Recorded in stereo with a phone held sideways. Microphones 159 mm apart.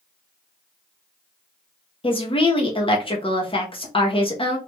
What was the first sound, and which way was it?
A woman speaking, 35° left (ahead or behind).